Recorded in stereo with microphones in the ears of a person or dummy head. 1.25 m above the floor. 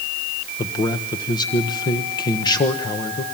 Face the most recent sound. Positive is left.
turn(degrees=25)  # may be behind; listen again after turning